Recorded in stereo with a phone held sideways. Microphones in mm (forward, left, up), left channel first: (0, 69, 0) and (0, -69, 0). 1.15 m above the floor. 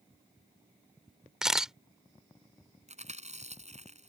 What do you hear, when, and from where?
1.4 s a camera shutter: 5° right (ahead or behind)
2.9 s chewing: 55° right (ahead or behind)